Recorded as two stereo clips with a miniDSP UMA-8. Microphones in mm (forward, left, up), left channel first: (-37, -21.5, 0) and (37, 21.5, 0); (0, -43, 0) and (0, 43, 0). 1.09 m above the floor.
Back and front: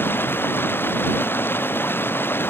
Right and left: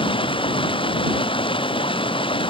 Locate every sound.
0.0 s running water: 85° right